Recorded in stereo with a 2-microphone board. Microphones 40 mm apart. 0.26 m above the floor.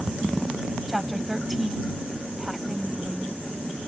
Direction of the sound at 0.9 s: Centre (ahead or behind).